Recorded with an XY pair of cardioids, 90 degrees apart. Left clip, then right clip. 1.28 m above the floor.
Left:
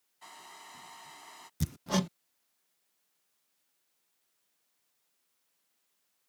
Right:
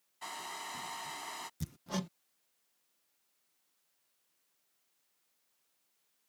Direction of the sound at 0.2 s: 60° right.